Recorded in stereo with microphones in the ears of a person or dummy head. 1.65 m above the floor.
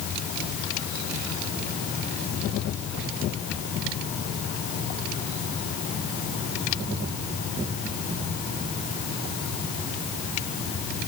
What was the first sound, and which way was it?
Only background noise.